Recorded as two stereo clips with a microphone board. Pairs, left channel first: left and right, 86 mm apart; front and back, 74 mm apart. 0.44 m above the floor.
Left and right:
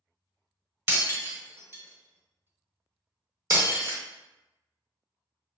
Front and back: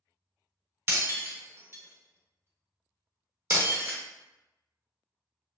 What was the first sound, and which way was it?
Breaking glass, 135° right.